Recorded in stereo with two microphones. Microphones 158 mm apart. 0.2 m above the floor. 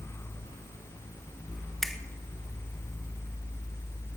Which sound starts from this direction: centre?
A finger snap, at 1.8 s.